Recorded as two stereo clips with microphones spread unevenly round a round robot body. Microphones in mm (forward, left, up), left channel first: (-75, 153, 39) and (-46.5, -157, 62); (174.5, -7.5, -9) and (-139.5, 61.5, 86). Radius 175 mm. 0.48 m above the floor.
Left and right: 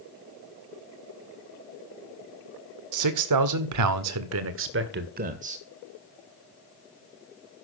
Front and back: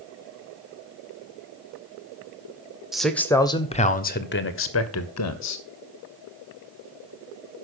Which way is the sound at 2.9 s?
95° right.